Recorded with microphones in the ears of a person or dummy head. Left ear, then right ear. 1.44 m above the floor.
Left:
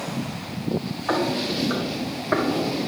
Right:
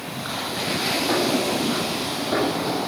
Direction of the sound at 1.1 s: 50° left (ahead or behind).